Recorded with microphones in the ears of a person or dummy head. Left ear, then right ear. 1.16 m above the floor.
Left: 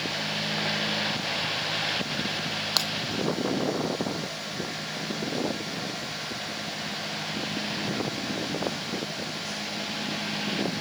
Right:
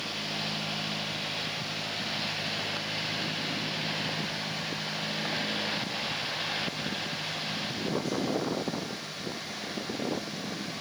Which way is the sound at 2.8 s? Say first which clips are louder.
Left 8 dB; 85° left.